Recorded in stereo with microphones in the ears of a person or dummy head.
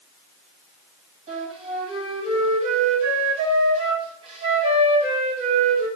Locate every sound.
1.3 s a flute: 30° right (ahead or behind), 1.4 m